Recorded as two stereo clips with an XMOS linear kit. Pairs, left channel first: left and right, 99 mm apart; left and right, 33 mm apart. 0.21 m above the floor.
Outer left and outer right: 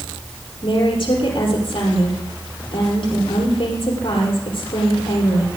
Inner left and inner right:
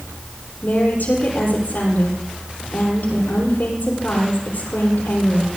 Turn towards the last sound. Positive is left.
turn(degrees=65)  # may be behind; listen again after turning